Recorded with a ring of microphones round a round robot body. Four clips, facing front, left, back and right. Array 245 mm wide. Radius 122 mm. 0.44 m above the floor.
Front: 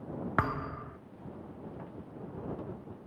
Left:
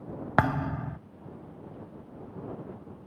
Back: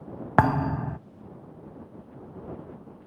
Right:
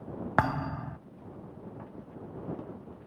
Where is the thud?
170° left.